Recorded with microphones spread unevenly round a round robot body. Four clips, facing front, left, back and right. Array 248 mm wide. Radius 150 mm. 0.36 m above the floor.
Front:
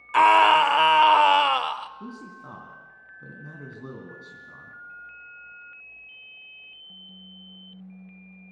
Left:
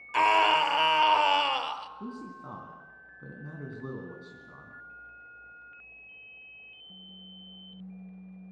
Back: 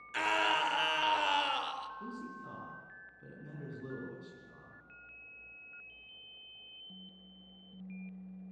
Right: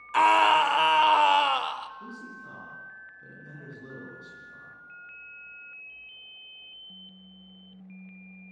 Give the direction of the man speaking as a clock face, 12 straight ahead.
11 o'clock.